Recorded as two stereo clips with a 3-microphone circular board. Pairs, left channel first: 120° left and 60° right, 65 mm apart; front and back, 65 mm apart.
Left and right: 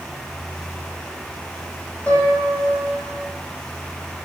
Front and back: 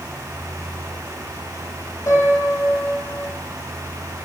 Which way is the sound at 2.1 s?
50° left.